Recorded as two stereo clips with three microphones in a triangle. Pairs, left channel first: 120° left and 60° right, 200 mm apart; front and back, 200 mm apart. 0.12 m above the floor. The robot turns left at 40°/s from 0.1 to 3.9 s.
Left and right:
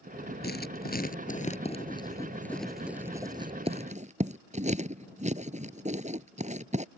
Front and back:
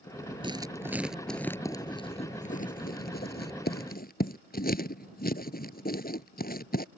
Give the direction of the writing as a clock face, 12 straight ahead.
8 o'clock.